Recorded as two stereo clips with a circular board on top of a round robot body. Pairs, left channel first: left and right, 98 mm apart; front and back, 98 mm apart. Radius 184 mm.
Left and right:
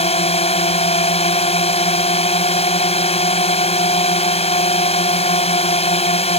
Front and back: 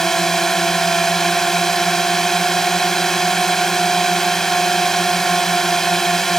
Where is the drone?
85° left.